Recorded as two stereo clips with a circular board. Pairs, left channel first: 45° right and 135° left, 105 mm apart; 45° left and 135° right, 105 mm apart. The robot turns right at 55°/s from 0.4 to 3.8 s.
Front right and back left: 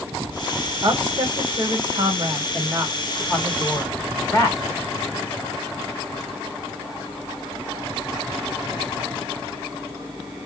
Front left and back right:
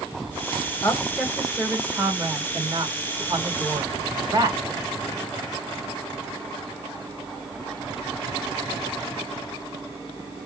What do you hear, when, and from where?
0.8 s a woman speaking: 105° left, 1.4 m; by 4.6 s 90° right, 1.4 m